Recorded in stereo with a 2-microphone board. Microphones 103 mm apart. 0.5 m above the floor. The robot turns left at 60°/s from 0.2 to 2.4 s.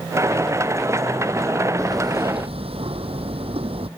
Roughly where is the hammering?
Ahead right.